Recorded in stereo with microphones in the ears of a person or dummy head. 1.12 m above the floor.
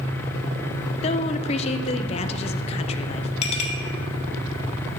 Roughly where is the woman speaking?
Left.